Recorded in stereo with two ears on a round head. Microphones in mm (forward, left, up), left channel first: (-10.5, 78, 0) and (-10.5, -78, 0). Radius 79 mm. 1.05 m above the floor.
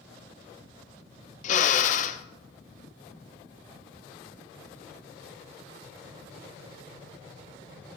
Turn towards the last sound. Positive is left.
turn(degrees=45)  # may be behind; listen again after turning